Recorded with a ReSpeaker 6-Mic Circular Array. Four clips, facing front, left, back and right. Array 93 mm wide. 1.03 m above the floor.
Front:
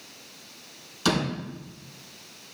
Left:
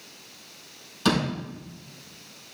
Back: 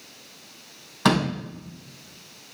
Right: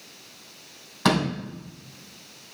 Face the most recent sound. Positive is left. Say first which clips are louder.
# right 2 dB, back 4 dB
turn(degrees=-145)